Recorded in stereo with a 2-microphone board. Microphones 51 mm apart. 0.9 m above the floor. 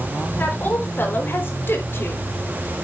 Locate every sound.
0.4 s a woman speaking: 40° left (ahead or behind), 4 m; by 2.2 s 50° left (ahead or behind), 3 m